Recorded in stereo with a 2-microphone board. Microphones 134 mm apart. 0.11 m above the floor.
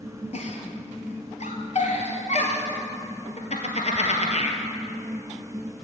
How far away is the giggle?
About 1.5 m.